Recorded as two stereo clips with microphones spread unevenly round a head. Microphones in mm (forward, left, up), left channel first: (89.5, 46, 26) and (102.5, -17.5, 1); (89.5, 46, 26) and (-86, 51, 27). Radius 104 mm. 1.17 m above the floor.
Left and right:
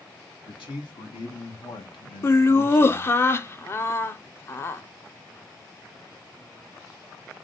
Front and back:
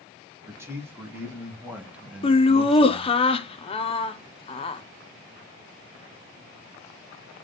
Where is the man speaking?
100° left, 2 m; by 3.2 s 80° left, 0.8 m.